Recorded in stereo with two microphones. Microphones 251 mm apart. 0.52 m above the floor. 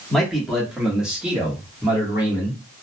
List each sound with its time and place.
0.1 s a man speaking: centre (ahead or behind), 1.1 m; by 2.6 s 10° right (ahead or behind), 1.4 m